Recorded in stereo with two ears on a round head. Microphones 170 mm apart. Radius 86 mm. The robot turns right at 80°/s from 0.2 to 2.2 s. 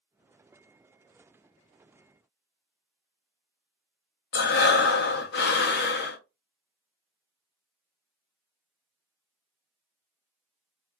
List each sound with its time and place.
4.3 s breathing: 60° left (ahead or behind), 0.7 m